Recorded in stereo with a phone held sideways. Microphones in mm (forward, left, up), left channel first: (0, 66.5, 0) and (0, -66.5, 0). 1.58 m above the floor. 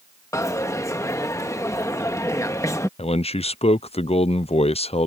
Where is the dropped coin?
20° left (ahead or behind).